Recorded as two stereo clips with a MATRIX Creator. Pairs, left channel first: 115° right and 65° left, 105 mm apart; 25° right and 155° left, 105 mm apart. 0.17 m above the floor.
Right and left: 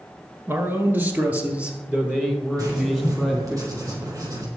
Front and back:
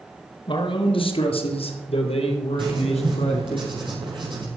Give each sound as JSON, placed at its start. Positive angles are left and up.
{"t": 0.5, "sound": "a man speaking", "azimuth_deg": 5, "distance_m": 2.0}
{"t": 2.6, "sound": "writing", "azimuth_deg": 125, "distance_m": 5.0}